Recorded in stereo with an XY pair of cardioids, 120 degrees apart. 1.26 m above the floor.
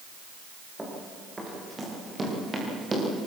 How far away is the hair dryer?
I don't hear a hair dryer.